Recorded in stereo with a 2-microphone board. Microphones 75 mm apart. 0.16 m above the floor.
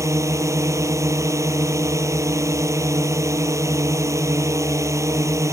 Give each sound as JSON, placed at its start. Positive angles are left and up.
{"t": 0.0, "sound": "a drone", "side_deg": -40}